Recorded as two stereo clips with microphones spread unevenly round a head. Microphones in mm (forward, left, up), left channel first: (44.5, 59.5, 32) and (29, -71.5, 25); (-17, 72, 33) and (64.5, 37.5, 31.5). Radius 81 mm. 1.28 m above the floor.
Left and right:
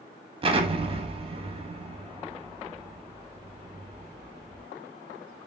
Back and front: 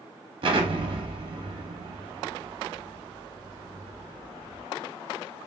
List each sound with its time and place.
0.4 s an explosion: 50° right, 0.8 m